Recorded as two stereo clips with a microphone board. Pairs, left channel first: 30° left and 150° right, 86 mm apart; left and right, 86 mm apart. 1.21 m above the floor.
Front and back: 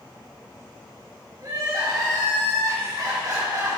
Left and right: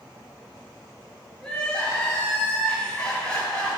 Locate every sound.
1.4 s crying: 165° left, 5.5 m